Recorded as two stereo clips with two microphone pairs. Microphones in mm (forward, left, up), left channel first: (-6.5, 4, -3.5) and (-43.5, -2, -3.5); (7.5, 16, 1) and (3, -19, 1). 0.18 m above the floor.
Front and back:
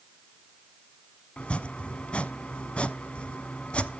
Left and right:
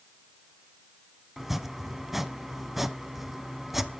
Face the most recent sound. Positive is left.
turn(degrees=-20)